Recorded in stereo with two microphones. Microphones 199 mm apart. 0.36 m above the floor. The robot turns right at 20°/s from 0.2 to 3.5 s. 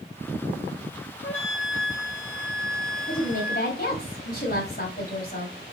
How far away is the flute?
About 1.7 m.